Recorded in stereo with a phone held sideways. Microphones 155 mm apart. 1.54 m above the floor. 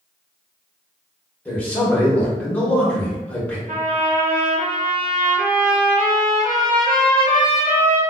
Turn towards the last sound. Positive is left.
turn(degrees=-75)  # may be behind; listen again after turning